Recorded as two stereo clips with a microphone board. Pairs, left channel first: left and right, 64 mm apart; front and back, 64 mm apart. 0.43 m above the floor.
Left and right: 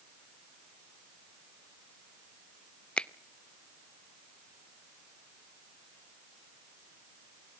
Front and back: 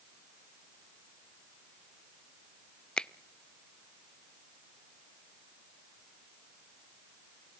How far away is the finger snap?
About 0.6 m.